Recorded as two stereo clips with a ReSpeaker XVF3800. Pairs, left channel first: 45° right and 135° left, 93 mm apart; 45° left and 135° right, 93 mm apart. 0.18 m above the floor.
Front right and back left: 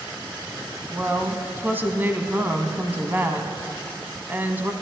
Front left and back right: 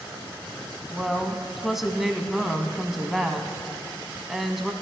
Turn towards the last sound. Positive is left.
turn(degrees=140)